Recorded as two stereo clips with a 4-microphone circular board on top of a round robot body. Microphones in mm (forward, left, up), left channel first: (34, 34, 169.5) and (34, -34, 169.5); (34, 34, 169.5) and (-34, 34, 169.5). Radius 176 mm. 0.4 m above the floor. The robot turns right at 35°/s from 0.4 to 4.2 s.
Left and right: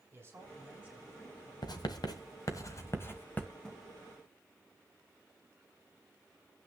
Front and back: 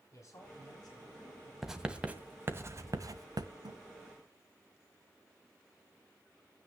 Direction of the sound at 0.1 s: 35° right.